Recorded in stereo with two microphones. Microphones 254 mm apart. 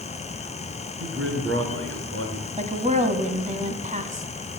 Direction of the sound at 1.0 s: 60° right (ahead or behind).